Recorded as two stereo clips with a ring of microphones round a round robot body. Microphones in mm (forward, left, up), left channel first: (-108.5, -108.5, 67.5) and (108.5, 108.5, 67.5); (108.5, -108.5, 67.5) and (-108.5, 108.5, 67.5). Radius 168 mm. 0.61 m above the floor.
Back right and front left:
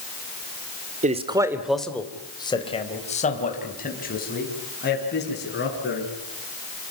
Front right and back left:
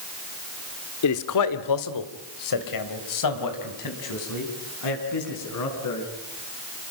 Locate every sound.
1.0 s a man speaking: 20° right, 1.9 m; by 6.1 s 80° right, 8.5 m